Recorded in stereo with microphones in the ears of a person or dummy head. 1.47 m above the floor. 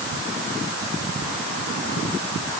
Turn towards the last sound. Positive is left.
No sound to turn to.